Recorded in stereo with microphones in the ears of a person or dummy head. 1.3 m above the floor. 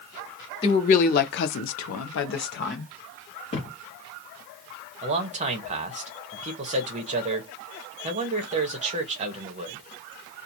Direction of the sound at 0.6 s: 35° left (ahead or behind).